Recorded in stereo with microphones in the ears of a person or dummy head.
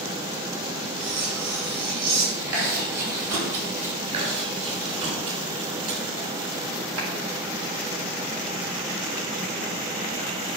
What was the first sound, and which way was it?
Cutlery clinking, 85° right.